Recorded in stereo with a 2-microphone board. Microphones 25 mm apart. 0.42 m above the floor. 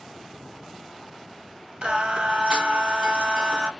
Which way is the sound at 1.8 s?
40° right (ahead or behind).